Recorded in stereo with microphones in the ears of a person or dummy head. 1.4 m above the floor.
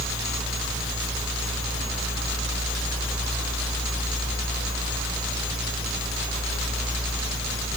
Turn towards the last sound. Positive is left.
No sound to turn to.